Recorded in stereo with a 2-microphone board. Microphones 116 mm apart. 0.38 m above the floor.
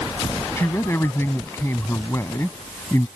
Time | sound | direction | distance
0.6 | a man speaking | 25° left (ahead or behind) | ?